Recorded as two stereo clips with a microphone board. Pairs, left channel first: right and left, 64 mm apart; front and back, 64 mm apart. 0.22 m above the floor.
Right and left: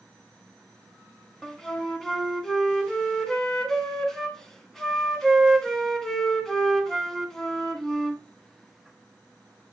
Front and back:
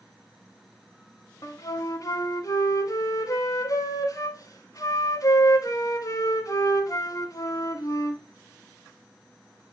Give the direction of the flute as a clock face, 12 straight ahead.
12 o'clock.